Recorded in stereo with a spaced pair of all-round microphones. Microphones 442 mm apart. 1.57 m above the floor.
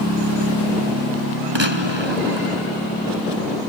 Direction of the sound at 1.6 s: 75° right (ahead or behind).